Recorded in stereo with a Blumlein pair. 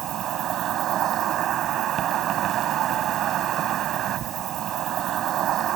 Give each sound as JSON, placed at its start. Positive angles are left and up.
{"t": 0.0, "sound": "an insect", "azimuth_deg": -30}